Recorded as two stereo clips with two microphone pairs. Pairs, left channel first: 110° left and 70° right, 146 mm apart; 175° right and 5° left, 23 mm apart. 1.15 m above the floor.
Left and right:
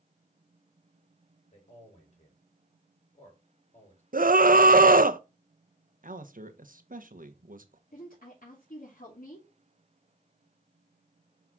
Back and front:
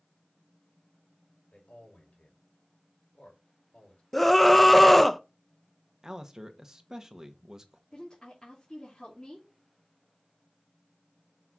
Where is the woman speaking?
120° left, 3 m.